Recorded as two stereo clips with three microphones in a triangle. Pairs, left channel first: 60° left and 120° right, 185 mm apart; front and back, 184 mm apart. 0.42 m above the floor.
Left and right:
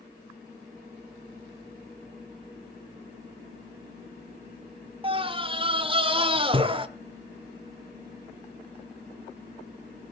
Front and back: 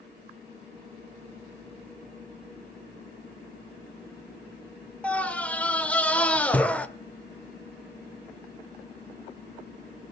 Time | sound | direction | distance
5.0 | a scream | 80° right | 1.4 m